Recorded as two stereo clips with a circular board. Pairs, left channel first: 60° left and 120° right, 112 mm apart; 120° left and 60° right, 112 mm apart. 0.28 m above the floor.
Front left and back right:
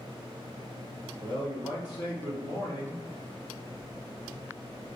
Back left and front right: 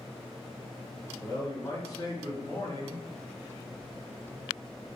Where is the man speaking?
75° left, 2 m.